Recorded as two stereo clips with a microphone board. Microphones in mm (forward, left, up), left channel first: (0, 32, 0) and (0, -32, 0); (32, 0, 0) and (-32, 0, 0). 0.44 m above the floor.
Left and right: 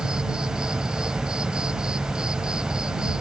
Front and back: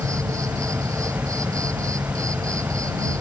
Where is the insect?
165° right.